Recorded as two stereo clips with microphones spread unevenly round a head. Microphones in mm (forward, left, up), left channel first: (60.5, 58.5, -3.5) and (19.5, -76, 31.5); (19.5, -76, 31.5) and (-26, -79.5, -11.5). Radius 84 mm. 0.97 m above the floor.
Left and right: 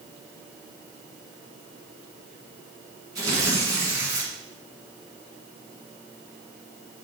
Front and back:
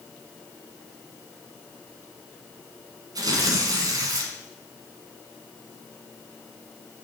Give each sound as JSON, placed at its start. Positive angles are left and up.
{"t": 3.1, "sound": "tearing paper", "azimuth_deg": -160, "distance_m": 1.5}